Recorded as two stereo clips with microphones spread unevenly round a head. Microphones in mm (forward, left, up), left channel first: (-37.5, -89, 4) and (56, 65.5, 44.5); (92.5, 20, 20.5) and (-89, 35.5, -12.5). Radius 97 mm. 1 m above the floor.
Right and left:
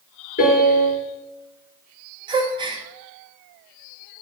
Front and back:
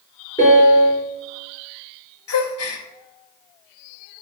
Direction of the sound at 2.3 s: 10° right.